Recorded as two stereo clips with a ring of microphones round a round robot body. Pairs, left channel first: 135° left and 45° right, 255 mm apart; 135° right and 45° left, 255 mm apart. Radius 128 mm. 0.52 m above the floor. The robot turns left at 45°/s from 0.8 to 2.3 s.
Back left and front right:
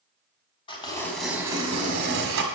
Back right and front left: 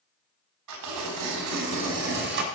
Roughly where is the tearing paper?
Ahead left.